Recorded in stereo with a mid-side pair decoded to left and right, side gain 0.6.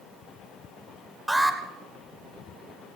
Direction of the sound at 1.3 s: Straight ahead.